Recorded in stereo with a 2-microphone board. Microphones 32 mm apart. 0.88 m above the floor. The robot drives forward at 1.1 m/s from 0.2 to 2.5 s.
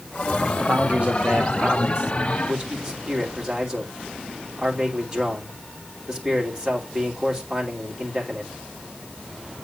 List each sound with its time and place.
0.6 s a man speaking: 50° right (ahead or behind), 1.5 m; by 8.5 s 25° right (ahead or behind), 3 m